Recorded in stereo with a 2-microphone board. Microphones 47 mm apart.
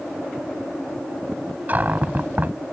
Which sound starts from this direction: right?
A cupboard door, at 1.7 s.